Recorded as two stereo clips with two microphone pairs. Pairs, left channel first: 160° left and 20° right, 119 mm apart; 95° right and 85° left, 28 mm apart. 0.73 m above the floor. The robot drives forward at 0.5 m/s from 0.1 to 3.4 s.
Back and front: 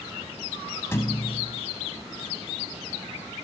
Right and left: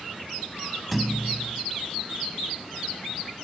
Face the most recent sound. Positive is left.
turn(degrees=180)